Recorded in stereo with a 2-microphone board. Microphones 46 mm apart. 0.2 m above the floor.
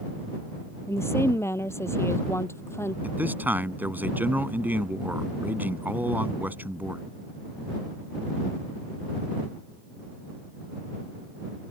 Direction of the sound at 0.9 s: 80° left.